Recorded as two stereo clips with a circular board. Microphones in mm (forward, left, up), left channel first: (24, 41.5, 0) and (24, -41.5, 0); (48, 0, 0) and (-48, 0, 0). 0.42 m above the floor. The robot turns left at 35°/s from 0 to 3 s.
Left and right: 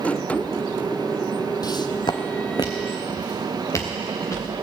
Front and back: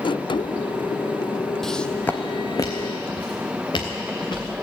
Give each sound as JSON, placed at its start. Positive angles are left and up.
{"t": 1.6, "sound": "footsteps", "azimuth_deg": 85, "distance_m": 0.6}